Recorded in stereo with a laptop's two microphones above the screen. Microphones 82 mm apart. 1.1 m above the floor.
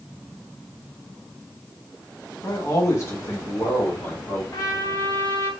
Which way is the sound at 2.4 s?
40° left (ahead or behind).